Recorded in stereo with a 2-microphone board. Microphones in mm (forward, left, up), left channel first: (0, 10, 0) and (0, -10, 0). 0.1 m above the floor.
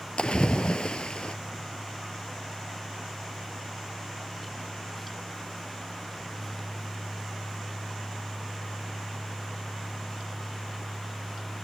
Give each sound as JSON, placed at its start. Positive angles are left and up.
{"t": 0.2, "sound": "a splash", "side_deg": 50, "distance_m": 0.9}